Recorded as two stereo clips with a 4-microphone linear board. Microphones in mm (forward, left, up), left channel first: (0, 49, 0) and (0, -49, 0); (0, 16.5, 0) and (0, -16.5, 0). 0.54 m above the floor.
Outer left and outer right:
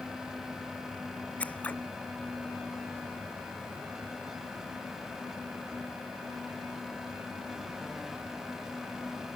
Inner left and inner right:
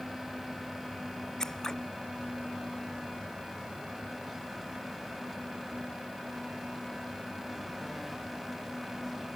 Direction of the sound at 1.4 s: 15° left (ahead or behind).